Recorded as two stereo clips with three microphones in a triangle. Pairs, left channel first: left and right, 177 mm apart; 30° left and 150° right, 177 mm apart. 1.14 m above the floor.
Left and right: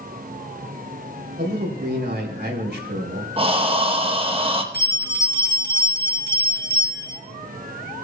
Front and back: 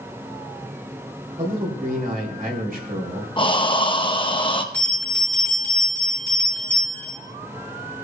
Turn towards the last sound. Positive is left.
turn(degrees=115)